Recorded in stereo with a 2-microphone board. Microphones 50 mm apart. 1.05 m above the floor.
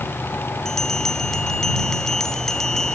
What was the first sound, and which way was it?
A bell, 10° left (ahead or behind).